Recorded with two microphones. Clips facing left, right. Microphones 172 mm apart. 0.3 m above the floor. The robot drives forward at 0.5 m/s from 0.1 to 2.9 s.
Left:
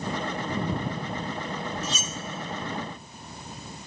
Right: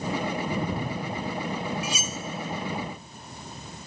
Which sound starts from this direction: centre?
Cutlery clinking, at 1.8 s.